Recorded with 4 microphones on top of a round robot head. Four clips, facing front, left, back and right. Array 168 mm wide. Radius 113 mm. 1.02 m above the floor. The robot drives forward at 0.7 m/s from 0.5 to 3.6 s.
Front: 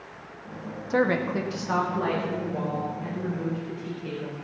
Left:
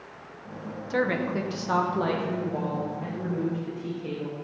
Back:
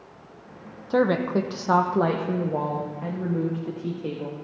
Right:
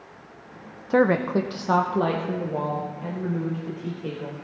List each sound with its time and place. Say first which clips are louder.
0.9 s a woman speaking: right 7 dB, back 3 dB; 105° right, 0.8 m; by 4.4 s 165° right, 2 m